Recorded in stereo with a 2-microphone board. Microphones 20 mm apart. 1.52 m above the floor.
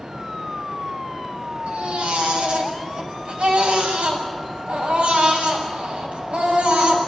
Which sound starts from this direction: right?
A baby crying, at 1.7 s.